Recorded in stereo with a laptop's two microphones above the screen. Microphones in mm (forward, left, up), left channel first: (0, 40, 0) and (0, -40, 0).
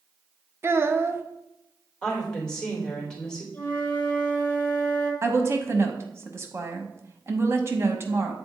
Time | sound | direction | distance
0.6 | a child speaking | 30° right (ahead or behind) | 0.8 m
2.0 | a woman speaking | 10° left (ahead or behind) | 3 m
3.5 | a flute | 20° left (ahead or behind) | 1.8 m
5.2 | a woman speaking | 30° right (ahead or behind) | 0.9 m